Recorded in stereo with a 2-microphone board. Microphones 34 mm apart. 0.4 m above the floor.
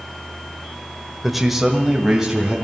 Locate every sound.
1.2 s a man speaking: centre (ahead or behind), 1.2 m; by 2.5 s 15° right (ahead or behind), 2.5 m